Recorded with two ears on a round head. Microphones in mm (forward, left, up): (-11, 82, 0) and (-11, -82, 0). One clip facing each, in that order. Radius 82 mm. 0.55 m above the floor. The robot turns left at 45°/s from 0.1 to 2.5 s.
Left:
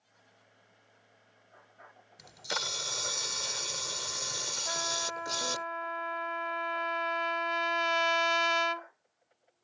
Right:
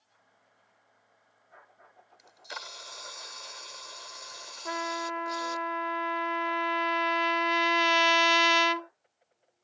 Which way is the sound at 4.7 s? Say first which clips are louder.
Right 5 dB; 60° right (ahead or behind).